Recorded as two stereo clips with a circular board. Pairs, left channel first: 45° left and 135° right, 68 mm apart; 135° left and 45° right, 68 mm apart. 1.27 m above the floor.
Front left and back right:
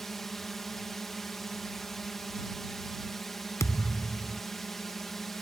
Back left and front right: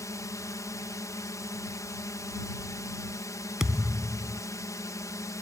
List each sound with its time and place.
0.0 s a drone: 130° left
3.6 s a thud: 30° left